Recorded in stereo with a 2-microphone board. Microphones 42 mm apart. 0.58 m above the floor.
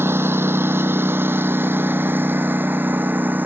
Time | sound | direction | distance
0.0 | a lawn mower | 80° right | ?